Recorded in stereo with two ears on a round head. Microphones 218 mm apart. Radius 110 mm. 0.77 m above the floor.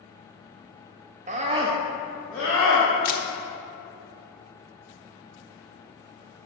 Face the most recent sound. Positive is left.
turn(degrees=40)  # may be behind; listen again after turning